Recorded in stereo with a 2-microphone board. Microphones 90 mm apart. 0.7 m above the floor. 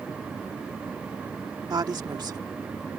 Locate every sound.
1.7 s a woman speaking: 50° right (ahead or behind)